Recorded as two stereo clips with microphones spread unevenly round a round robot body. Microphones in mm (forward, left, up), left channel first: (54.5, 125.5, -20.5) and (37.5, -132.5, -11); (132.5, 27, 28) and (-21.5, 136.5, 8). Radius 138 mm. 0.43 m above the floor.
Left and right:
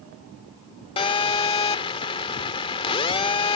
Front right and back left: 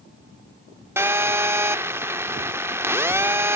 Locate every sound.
1.0 s a phone buzzing: 105° left